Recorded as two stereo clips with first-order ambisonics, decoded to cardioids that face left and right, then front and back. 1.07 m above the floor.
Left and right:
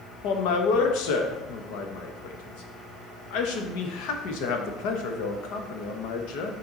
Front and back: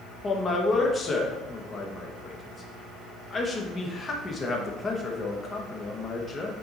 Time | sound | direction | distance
0.2 | a man speaking | 70° left | 1.1 m